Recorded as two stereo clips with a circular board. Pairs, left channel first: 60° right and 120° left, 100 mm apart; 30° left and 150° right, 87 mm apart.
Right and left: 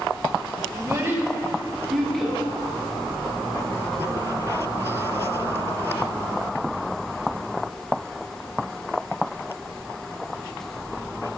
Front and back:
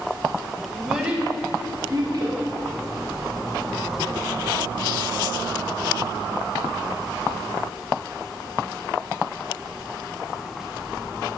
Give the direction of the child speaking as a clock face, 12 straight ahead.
8 o'clock.